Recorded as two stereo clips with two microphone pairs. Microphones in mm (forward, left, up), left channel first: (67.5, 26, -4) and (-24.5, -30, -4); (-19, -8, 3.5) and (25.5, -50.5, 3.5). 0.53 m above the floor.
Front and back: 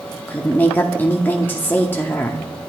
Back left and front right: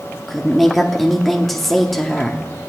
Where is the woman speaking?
45° left, 0.7 m.